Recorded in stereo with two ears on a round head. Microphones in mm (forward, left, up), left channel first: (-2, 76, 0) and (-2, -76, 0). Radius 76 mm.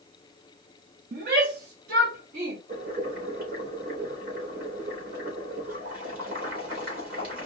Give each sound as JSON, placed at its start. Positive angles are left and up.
{"t": 1.1, "sound": "a shout", "side_deg": -60, "distance_m": 1.3}
{"t": 2.7, "sound": "boiling", "side_deg": -55, "distance_m": 3.0}